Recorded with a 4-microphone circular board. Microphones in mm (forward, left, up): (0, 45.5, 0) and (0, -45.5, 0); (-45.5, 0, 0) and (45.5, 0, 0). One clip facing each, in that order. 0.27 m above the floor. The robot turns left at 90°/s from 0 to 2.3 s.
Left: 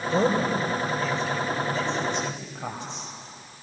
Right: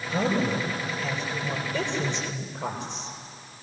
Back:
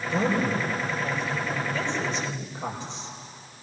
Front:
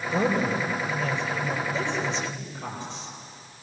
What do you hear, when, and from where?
0.1 s a woman speaking: 90° left, 8 m; by 3.1 s 105° right, 8 m